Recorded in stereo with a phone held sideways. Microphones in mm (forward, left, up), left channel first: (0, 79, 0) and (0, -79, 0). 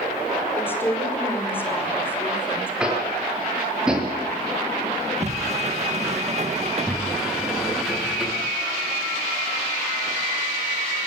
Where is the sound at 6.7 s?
Centre (ahead or behind), 8 m.